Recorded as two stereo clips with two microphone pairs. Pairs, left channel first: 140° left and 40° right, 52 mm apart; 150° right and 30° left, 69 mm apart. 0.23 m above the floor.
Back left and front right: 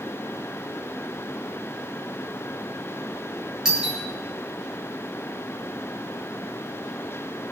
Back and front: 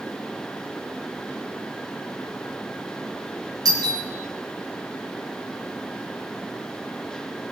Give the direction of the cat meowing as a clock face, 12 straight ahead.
I don't hear a cat meowing.